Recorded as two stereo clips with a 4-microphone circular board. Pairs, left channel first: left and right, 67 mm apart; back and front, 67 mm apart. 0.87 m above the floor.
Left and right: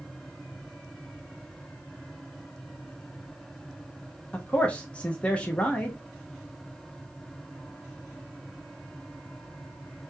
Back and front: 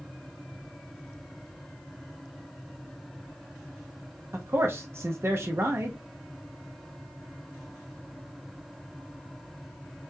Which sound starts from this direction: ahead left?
A man speaking, at 4.3 s.